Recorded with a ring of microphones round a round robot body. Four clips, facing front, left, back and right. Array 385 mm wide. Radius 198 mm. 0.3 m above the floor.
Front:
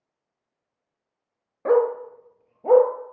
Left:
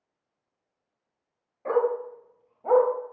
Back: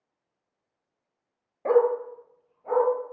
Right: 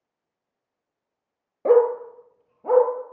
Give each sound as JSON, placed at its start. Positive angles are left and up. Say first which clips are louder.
{"t": 1.6, "sound": "a dog barking", "louder": "right 8 dB, front 1 dB", "azimuth_deg": -70, "distance_m": 1.8}